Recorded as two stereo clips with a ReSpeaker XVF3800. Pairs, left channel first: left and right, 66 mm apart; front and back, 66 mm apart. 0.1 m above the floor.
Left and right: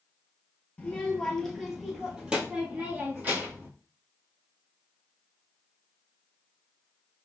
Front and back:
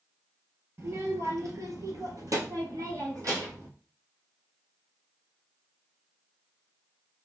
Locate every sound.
0.8 s a child speaking: 150° left, 1.3 m; by 3.7 s 145° right, 2.5 m